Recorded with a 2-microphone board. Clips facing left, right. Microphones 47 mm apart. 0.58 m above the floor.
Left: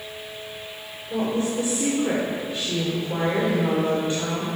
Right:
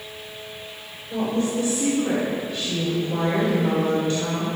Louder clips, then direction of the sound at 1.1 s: Right 1 dB; 25° left (ahead or behind).